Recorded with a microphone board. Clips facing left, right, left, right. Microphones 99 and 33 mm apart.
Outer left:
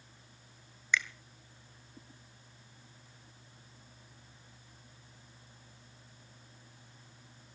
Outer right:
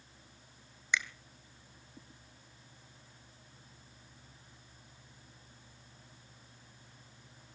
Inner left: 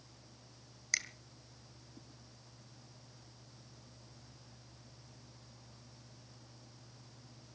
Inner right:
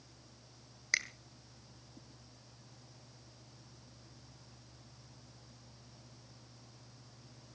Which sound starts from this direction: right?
A finger snap, at 0.9 s.